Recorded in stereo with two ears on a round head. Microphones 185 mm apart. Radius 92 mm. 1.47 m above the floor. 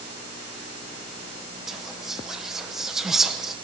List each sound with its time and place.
1.7 s whispering: centre (ahead or behind), 0.7 m